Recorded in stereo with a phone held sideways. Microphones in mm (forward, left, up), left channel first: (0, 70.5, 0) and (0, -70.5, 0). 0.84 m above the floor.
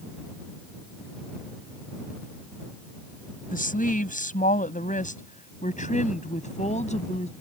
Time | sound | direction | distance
3.5 | a woman speaking | 75° left (ahead or behind) | ?